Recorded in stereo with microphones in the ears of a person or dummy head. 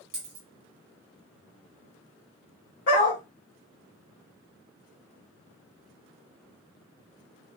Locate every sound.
0.1 s a dropped coin: 35° right (ahead or behind), 1.0 m
2.9 s a dog barking: 40° left (ahead or behind), 1.3 m